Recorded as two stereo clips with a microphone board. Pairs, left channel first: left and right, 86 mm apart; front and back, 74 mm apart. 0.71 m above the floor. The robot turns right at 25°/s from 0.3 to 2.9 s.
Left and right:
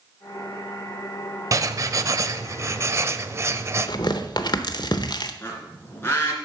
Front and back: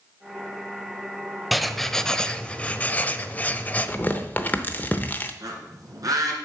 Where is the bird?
150° left, 2.5 m.